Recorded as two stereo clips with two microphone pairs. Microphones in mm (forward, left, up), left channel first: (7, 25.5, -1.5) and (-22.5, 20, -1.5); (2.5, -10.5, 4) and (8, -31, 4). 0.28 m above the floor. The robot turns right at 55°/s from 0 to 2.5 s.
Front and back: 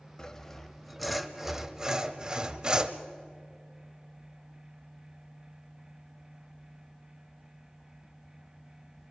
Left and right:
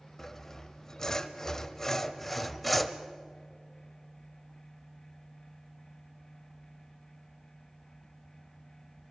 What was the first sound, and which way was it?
Sawing, 55° left.